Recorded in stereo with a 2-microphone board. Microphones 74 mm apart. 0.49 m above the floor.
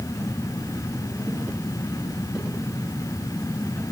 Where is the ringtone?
No ringtone in this recording.